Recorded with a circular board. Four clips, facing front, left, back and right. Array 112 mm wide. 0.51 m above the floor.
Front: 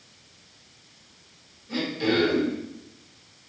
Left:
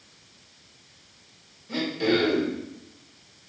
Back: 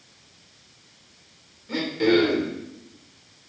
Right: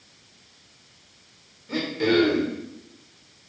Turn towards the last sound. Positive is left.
turn(degrees=-135)